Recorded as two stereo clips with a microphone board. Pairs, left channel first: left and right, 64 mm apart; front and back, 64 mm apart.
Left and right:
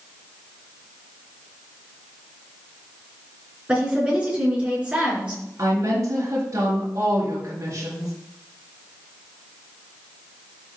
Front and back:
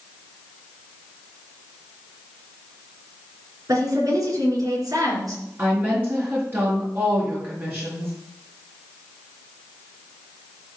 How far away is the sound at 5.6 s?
About 5 m.